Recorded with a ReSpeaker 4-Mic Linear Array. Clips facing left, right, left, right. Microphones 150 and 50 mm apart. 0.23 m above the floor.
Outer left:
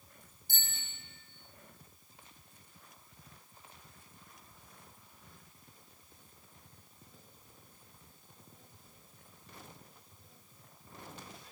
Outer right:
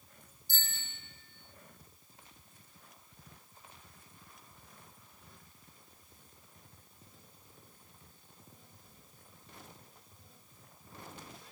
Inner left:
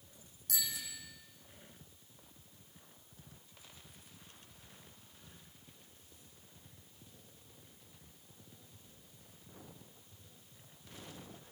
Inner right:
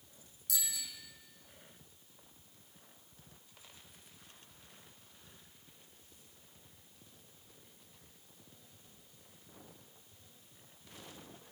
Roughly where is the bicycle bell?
Left.